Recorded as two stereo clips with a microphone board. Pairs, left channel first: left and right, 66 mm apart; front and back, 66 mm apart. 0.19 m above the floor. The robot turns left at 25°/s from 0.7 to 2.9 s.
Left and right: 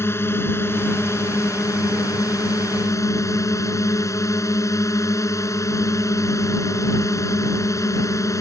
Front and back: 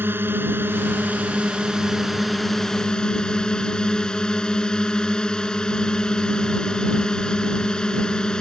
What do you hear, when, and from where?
0.0 s a drone: 130° left; by 8.4 s 75° left